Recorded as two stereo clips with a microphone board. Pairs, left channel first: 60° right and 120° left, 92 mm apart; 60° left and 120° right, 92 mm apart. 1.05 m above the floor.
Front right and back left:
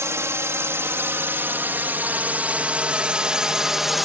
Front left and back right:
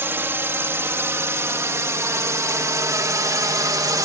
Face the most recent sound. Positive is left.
turn(degrees=-155)